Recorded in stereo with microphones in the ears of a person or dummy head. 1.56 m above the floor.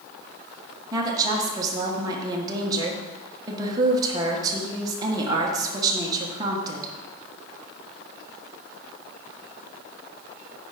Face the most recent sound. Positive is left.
turn(degrees=-25)  # may be behind; listen again after turning